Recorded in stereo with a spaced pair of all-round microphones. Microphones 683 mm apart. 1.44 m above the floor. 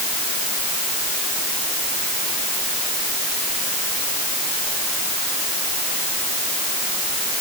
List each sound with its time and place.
Only background noise.